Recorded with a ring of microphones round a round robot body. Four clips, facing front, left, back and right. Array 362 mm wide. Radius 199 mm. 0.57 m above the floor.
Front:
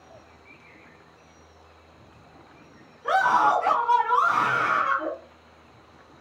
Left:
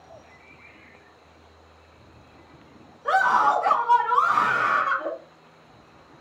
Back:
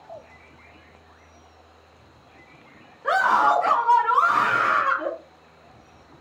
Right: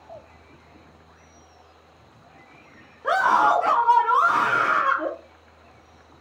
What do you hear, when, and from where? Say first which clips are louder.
3.0 s a scream: right 1 dB, back 1 dB; 105° right, 1.2 m